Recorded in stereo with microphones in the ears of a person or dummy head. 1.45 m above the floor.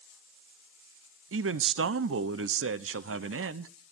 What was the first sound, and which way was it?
A man speaking, 70° right (ahead or behind).